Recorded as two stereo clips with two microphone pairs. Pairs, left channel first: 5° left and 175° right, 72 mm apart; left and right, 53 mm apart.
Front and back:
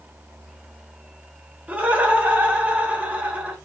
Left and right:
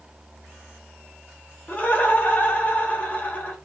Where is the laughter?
130° left, 0.8 m.